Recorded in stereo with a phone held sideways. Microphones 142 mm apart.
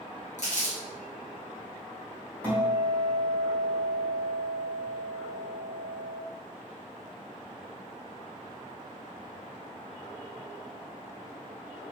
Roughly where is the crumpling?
Left.